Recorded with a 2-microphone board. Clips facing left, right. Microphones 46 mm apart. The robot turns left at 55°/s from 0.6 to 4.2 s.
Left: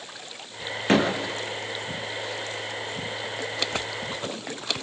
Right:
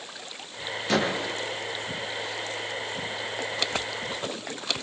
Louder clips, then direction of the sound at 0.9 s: Left 4 dB; 35° left (ahead or behind).